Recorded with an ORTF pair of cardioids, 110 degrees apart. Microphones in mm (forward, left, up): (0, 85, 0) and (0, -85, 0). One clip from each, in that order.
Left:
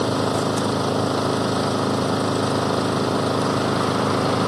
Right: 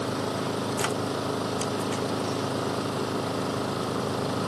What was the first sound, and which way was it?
An engine running, 50° left.